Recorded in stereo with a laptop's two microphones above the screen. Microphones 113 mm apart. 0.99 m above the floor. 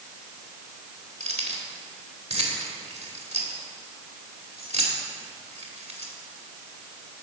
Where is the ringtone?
No ringtone in this recording.